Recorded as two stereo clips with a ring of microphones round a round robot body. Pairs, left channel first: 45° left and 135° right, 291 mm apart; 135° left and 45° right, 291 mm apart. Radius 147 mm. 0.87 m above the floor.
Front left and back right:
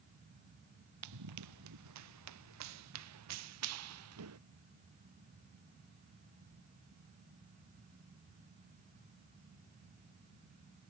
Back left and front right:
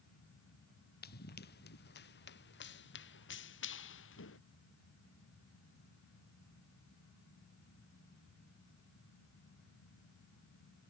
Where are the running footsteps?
165° right; by 4.4 s 175° right.